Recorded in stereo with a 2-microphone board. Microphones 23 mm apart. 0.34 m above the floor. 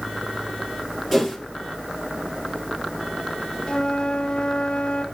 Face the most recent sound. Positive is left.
turn(degrees=45)  # may be behind; listen again after turning